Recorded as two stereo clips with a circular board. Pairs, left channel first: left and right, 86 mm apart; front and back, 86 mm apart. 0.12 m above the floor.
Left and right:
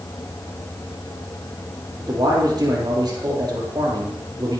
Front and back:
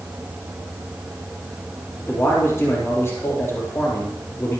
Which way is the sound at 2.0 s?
60° right.